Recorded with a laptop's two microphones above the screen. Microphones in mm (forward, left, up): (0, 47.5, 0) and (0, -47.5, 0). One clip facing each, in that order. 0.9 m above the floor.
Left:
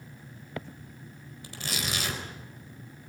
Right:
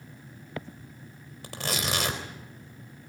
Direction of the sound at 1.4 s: 80° right.